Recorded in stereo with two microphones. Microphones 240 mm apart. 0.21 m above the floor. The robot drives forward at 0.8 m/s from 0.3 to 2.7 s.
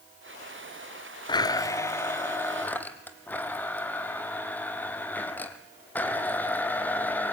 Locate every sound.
1.3 s a blender: 20° left (ahead or behind), 0.6 m; by 7.3 s 5° left (ahead or behind), 1.7 m